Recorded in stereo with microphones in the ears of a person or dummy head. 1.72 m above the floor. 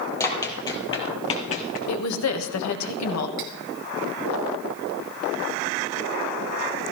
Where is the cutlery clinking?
55° right (ahead or behind), 2.5 m.